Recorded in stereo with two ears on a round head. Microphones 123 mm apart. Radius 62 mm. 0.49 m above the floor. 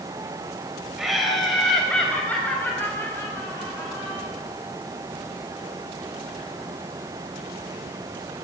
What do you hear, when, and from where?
1.0 s laughter: 5° right (ahead or behind), 2.5 m; by 4.3 s 25° left (ahead or behind), 4 m